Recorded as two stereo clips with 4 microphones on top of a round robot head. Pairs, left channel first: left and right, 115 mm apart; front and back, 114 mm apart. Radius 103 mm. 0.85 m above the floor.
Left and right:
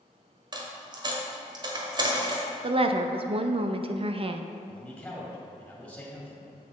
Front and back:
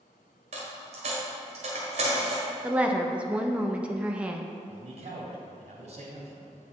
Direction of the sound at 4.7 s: 175° left.